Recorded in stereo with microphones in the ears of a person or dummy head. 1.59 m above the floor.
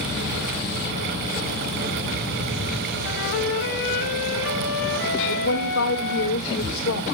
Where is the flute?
65° left (ahead or behind), 1.5 m.